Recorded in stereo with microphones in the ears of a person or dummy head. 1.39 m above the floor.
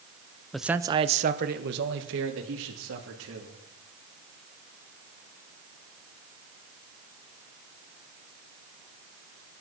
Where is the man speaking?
5° left (ahead or behind), 0.9 m; by 3.5 s 80° right, 4 m.